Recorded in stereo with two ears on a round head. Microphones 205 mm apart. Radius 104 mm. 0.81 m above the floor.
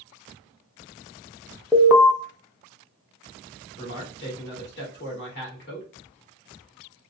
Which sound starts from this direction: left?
A man speaking, at 3.8 s.